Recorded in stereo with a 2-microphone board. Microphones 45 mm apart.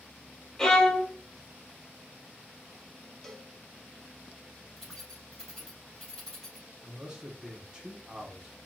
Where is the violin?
15° left (ahead or behind), 0.9 m.